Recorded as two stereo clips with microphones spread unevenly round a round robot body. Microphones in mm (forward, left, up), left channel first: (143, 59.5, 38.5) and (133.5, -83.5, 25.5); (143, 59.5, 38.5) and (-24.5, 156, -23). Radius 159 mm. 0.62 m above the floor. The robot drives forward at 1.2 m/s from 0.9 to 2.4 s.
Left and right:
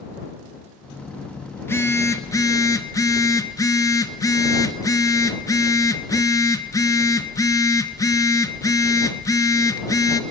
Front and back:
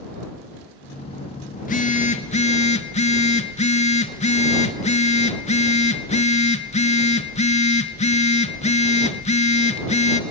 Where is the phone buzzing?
15° left, 3 m; by 10.2 s 20° left, 1.8 m.